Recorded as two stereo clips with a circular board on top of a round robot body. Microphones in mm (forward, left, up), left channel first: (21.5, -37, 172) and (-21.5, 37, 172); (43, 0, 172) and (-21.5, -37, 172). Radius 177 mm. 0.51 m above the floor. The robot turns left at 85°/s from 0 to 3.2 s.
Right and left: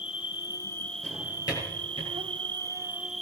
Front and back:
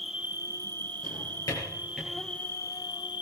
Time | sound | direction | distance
0.0 | an insect | 60° right | 0.8 m
1.0 | a drawer | 20° left | 8 m